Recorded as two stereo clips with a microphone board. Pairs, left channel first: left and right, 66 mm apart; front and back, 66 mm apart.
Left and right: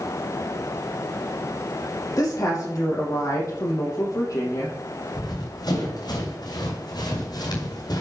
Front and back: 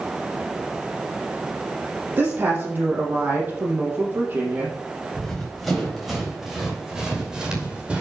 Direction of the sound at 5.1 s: 85° left.